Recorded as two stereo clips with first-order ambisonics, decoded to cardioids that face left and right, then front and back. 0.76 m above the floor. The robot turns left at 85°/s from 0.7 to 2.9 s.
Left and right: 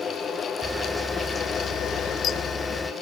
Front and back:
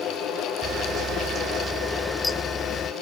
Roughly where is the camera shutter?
Behind.